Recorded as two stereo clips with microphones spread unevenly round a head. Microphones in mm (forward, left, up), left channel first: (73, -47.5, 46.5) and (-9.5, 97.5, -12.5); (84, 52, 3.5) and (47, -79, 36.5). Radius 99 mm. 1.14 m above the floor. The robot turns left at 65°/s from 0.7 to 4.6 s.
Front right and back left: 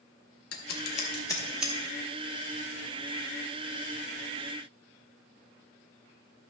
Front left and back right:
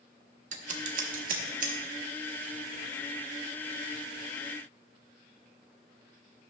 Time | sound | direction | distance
0.5 | scissors | 85° right | 1.0 m